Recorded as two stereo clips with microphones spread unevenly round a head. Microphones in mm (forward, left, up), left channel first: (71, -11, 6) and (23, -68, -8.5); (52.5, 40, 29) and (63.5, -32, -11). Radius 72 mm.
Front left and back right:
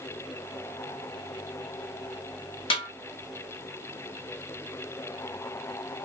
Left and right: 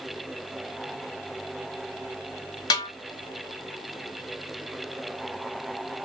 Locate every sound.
2.7 s a snare drum: 70° left, 1.0 m